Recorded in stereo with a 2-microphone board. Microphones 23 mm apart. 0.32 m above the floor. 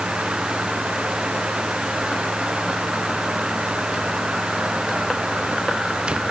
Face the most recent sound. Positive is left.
No sound to turn to.